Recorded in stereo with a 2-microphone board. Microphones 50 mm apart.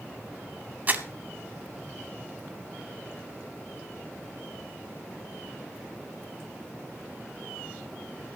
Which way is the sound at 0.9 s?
35° right (ahead or behind).